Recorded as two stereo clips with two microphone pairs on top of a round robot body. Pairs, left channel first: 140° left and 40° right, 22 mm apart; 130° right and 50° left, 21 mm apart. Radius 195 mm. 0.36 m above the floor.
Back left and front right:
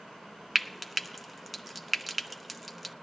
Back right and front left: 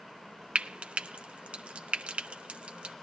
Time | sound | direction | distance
0.6 | frying | 50° left | 0.9 m